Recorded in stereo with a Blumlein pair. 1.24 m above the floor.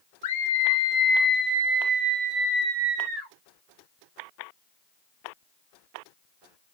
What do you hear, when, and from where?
0.2 s a scream: 60° left, 0.7 m; by 3.3 s 35° right, 1.5 m